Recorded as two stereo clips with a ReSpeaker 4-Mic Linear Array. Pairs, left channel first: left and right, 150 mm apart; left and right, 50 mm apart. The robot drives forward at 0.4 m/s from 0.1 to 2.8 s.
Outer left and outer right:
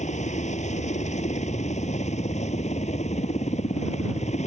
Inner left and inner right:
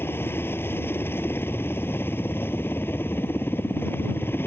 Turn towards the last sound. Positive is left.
turn(degrees=50)  # may be behind; listen again after turning